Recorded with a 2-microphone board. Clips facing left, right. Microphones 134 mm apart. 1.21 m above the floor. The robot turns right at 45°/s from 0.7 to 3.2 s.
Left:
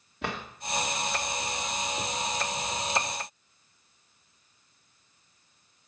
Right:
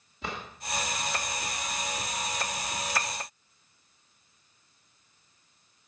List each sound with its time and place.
0.2 s a drawer: 70° left (ahead or behind), 1.5 m